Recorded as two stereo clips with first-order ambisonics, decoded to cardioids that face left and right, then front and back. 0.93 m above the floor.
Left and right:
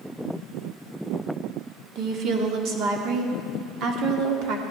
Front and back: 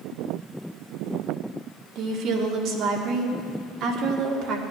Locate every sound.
1.9 s a woman speaking: 130° right, 2 m